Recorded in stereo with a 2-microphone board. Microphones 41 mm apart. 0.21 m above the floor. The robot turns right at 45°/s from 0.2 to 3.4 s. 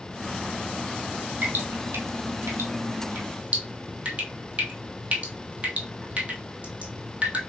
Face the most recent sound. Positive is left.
turn(degrees=-40)  # may be behind; listen again after turning